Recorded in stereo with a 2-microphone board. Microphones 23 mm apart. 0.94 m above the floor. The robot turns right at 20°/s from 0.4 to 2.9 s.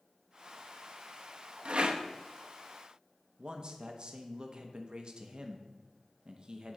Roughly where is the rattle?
Right.